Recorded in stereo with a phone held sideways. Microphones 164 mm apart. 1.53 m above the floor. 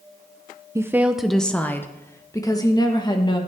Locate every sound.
0.8 s a woman speaking: 20° right (ahead or behind), 0.6 m; by 3.4 s 30° left (ahead or behind), 1.7 m